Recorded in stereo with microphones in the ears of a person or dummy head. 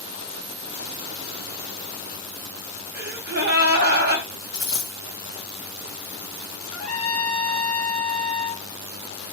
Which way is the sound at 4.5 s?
5° right (ahead or behind).